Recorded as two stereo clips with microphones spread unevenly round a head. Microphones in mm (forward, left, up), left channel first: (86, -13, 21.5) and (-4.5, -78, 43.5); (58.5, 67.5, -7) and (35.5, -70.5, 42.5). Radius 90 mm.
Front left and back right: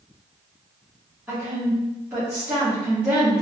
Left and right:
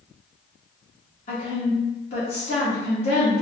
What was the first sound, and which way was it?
A woman speaking, 135° left.